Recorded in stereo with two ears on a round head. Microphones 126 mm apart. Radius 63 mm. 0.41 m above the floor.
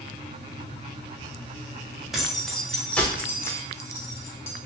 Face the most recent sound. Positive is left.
turn(degrees=20)  # may be behind; listen again after turning